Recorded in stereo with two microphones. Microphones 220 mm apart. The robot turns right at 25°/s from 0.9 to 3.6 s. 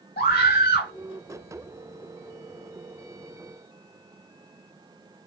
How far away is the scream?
About 1.5 m.